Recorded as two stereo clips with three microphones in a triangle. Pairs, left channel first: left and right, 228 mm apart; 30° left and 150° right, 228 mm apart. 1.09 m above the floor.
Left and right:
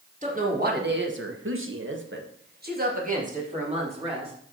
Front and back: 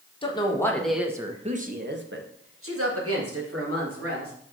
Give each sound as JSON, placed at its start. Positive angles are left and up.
{"t": 0.2, "sound": "a woman speaking", "azimuth_deg": -35, "distance_m": 1.7}